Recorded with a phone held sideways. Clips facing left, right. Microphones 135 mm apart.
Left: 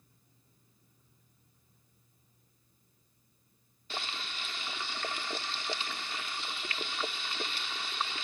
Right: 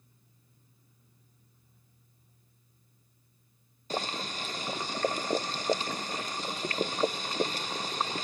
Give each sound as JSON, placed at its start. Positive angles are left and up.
{"t": 3.9, "sound": "boiling", "side_deg": -40}